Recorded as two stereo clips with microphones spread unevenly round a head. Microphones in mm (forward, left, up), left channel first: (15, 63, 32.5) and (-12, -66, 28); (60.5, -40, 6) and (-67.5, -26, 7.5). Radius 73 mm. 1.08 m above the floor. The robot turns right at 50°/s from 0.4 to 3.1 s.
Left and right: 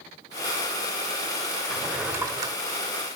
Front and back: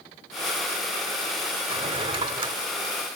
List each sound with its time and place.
1.7 s a drawer: 165° left, 0.9 m; by 2.6 s 155° right, 0.9 m